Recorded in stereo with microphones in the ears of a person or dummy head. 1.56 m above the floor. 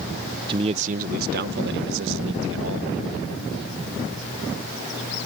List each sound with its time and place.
0.5 s a man speaking: 25° right (ahead or behind); by 2.9 s 80° right